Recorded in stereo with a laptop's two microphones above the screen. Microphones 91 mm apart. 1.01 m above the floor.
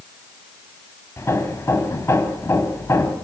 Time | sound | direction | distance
1.2 | hammering | 30° left (ahead or behind) | 6 m